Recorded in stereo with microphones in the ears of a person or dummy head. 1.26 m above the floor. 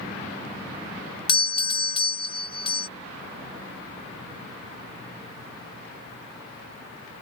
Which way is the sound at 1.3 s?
30° left (ahead or behind).